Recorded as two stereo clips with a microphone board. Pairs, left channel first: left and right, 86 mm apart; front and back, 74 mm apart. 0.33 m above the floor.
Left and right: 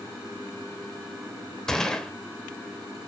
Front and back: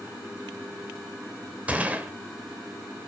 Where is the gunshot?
160° left, 0.9 m.